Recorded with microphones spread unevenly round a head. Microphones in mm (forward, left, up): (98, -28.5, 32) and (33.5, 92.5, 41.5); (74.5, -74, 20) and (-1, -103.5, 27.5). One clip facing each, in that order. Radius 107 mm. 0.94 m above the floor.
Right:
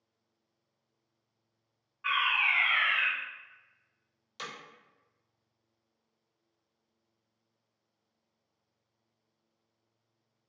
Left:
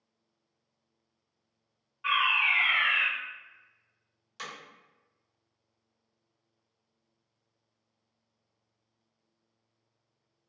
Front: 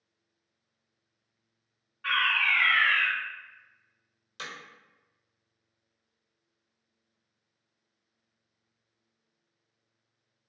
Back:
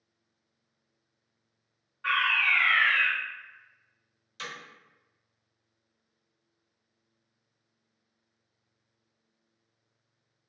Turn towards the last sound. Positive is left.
turn(degrees=0)